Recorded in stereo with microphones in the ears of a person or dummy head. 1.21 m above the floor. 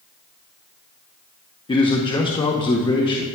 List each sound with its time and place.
1.7 s a man speaking: 30° left (ahead or behind), 0.6 m